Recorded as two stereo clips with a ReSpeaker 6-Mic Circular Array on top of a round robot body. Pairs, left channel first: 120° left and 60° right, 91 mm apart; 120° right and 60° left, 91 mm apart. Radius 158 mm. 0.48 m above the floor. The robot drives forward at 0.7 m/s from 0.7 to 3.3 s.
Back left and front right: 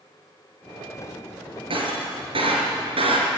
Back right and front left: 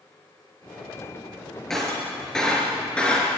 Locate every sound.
1.7 s breaking glass: 35° right, 5.5 m; by 3.3 s 45° right, 4.5 m